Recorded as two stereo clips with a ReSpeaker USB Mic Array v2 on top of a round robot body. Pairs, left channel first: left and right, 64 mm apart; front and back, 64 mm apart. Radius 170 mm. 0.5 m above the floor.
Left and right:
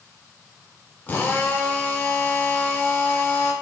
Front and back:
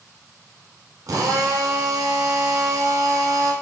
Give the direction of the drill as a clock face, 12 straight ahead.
7 o'clock.